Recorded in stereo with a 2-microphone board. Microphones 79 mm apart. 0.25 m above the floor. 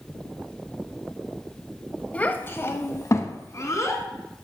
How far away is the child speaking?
About 0.6 m.